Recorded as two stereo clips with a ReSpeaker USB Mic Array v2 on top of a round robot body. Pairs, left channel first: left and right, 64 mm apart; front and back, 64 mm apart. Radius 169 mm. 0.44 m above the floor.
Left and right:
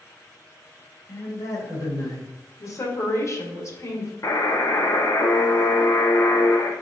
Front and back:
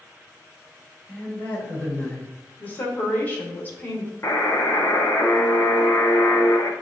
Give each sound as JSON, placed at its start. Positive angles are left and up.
{"t": 1.1, "sound": "a man speaking", "azimuth_deg": 65, "distance_m": 2.5}
{"t": 2.6, "sound": "a woman speaking", "azimuth_deg": 60, "distance_m": 2.0}
{"t": 4.2, "sound": "a buzzer", "azimuth_deg": 50, "distance_m": 0.9}